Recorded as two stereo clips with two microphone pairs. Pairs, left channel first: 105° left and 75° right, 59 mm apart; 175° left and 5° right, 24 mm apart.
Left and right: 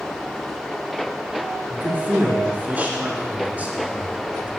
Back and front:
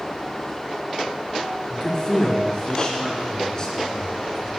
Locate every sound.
1.7 s a man speaking: 130° right, 3 m